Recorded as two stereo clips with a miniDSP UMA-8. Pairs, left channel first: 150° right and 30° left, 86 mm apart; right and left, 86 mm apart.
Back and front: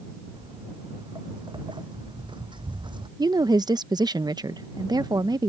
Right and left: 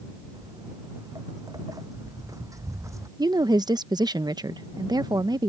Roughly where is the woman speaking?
Ahead left.